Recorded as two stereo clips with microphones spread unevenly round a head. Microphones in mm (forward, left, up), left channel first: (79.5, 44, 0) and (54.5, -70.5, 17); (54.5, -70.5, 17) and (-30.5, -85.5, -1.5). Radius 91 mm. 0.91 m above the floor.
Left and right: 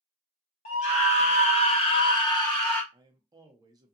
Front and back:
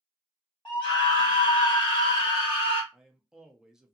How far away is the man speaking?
About 0.6 m.